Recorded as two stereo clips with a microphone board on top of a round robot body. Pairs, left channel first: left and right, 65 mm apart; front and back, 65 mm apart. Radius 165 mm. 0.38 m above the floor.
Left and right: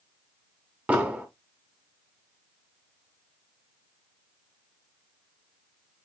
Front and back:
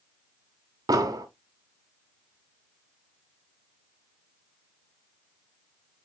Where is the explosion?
160° right, 1.3 m.